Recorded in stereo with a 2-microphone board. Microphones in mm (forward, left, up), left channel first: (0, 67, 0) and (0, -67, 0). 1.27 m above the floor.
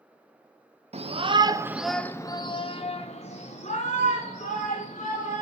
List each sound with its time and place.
0.9 s a shout: 50° right (ahead or behind), 0.7 m; by 5.4 s 70° left (ahead or behind), 2 m